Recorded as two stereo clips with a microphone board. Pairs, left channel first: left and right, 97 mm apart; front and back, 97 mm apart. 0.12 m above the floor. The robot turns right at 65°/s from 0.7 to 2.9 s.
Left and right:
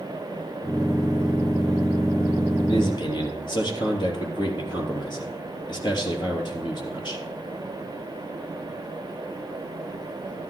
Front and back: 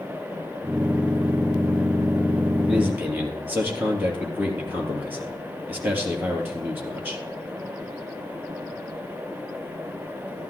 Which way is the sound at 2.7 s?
100° left.